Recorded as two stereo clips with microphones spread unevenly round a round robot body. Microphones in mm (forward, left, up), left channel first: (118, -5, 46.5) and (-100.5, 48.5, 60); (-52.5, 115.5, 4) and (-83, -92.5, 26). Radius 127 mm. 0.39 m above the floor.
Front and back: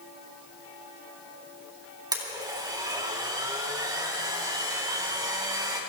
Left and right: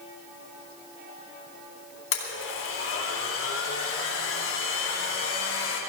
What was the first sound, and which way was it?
A blender, 95° left.